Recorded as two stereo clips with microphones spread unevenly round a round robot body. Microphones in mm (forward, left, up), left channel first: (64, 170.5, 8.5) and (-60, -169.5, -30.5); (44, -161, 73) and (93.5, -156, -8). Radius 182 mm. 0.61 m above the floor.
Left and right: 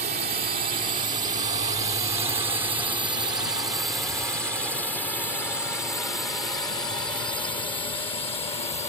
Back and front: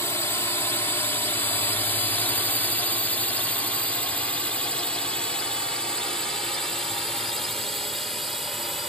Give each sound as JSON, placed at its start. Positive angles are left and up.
{"t": 0.0, "sound": "a drone", "azimuth_deg": -50}